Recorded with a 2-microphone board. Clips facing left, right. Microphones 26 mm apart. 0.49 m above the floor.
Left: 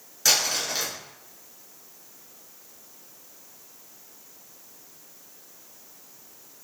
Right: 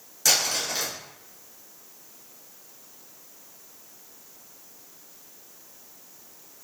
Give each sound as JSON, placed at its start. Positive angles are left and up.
{"t": 0.2, "sound": "crumpling", "side_deg": 20, "distance_m": 1.7}